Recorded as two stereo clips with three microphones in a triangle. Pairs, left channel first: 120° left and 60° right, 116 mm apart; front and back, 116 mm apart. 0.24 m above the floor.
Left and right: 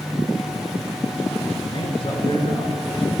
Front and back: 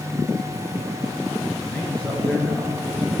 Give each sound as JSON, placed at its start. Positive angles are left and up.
{"t": 1.6, "sound": "a man speaking", "azimuth_deg": 75, "distance_m": 3.0}